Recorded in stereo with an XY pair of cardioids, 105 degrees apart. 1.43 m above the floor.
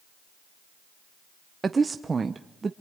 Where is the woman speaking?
30° right, 0.8 m.